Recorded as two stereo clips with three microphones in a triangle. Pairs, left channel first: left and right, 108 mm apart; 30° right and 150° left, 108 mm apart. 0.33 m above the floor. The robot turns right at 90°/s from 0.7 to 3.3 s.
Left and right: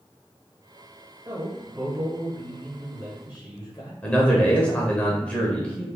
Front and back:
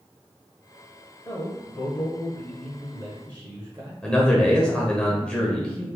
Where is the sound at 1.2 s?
75° right, 1.4 m; by 3.9 s 110° left, 1.4 m.